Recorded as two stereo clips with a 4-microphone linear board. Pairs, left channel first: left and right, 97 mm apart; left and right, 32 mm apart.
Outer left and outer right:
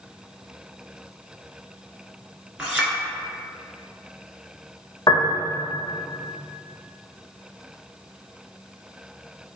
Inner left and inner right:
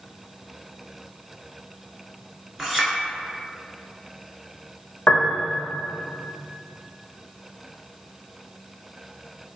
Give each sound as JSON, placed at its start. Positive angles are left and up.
{"t": 2.6, "sound": "a clink", "side_deg": -10, "distance_m": 1.3}
{"t": 5.1, "sound": "a piano", "side_deg": 35, "distance_m": 0.9}